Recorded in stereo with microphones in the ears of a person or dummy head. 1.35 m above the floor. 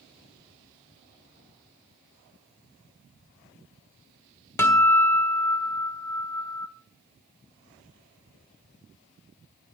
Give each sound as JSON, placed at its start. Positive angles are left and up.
{"t": 4.6, "sound": "a guitar", "side_deg": 10, "distance_m": 1.8}